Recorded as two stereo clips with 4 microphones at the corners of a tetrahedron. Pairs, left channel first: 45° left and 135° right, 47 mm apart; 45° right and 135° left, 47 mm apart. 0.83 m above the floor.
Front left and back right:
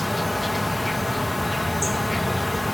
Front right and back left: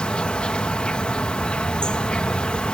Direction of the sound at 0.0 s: 45° right.